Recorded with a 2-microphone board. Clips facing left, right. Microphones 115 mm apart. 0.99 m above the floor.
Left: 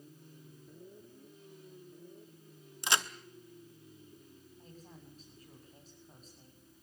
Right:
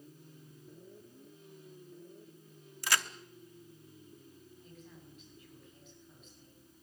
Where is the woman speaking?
40° left (ahead or behind), 6.5 m.